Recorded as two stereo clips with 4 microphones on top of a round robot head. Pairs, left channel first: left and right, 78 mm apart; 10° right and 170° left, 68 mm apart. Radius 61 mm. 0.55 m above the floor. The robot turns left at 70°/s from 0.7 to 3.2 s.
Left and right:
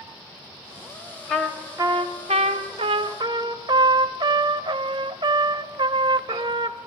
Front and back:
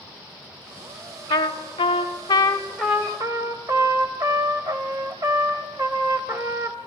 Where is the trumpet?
5° left, 0.8 m; by 6.8 s 125° right, 0.8 m.